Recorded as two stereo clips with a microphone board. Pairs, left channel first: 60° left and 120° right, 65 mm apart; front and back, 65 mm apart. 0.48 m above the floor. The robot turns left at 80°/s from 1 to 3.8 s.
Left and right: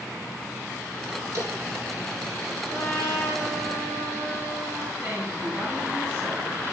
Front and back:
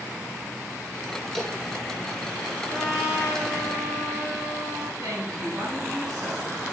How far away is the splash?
About 3.5 m.